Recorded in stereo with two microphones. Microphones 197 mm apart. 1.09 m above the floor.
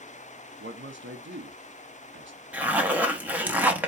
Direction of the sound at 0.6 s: 70° right (ahead or behind).